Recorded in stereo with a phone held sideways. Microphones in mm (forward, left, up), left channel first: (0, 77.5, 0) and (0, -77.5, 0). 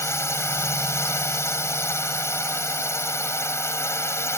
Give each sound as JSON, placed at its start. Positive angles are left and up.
{"t": 0.0, "sound": "a drone", "side_deg": 15}